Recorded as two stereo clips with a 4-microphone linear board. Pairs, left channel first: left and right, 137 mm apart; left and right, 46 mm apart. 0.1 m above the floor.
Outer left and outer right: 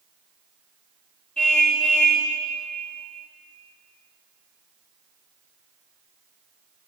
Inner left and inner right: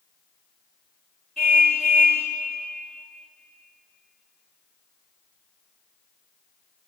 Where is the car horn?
5° left (ahead or behind), 6 m.